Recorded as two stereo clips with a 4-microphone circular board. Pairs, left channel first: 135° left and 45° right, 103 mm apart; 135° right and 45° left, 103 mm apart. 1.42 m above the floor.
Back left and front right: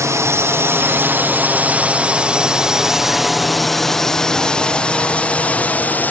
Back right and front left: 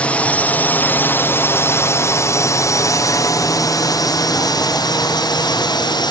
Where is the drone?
70° right; by 6.1 s 160° right.